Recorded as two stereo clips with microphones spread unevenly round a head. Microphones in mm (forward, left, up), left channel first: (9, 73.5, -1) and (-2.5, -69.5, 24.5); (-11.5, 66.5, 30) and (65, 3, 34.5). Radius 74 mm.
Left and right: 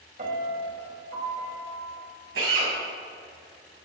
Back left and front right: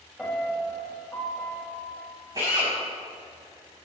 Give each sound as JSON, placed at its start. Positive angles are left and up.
{"t": 0.2, "sound": "a piano", "azimuth_deg": -130, "distance_m": 3.5}
{"t": 2.4, "sound": "a drill", "azimuth_deg": -105, "distance_m": 6.0}